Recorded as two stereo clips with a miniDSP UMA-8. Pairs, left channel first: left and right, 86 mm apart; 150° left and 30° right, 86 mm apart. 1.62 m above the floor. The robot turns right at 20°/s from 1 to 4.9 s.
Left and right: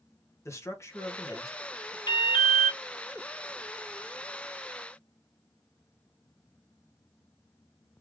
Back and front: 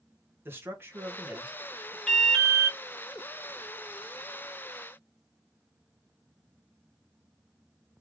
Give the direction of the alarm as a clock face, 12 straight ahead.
10 o'clock.